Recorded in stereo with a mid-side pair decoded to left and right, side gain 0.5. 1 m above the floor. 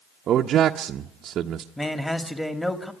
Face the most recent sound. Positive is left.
turn(degrees=5)